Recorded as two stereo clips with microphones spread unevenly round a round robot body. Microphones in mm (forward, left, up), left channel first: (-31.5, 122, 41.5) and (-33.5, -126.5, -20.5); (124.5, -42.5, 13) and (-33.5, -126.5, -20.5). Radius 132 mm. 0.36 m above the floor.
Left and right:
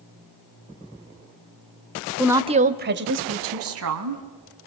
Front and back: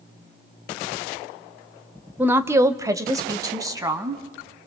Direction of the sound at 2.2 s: 135° right.